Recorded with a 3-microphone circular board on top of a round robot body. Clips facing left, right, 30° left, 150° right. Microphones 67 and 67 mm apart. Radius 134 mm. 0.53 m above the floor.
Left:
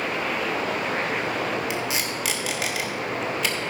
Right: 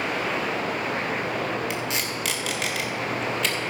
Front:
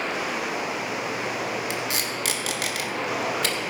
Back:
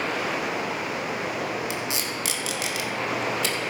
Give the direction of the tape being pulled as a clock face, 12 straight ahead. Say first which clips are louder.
Left 1 dB, front 1 dB; 12 o'clock.